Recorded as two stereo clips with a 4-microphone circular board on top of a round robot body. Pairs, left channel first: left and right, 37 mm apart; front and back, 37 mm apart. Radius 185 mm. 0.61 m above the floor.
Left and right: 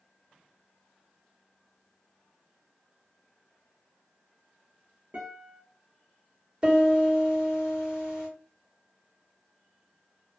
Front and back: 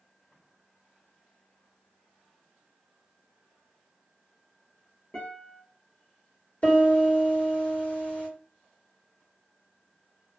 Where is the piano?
30° right, 1.8 m.